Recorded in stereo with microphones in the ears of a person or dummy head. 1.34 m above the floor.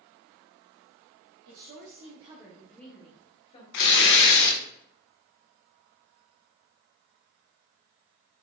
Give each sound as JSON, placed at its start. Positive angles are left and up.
{"t": 1.4, "sound": "a woman speaking", "side_deg": -65, "distance_m": 0.9}
{"t": 3.7, "sound": "tearing paper", "side_deg": 60, "distance_m": 0.7}